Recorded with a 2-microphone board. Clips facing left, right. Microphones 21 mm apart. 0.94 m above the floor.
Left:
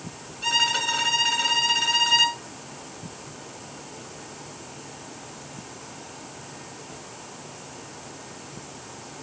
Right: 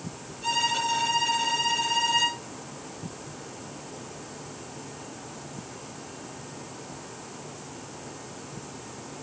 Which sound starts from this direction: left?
A violin, at 0.4 s.